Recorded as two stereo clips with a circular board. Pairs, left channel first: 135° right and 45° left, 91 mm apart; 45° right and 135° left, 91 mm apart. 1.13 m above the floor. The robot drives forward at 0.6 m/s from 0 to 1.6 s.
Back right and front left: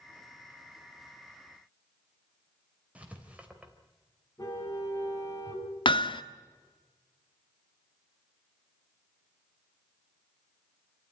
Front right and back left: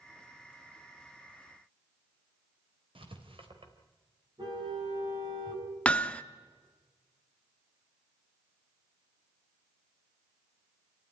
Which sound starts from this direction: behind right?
Hammering, at 5.8 s.